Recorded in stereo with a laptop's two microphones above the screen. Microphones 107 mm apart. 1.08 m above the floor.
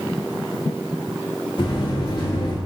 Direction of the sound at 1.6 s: 50° left (ahead or behind).